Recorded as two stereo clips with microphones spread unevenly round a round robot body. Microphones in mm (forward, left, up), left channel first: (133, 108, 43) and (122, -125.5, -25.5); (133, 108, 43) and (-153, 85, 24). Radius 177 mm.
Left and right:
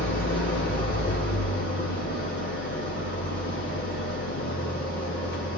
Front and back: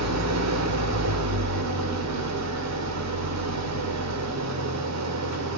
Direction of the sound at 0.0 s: 150° left.